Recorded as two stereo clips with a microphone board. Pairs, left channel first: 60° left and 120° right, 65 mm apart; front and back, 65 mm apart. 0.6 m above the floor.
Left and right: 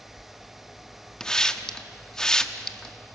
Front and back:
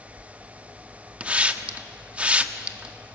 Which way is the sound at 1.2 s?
130° left.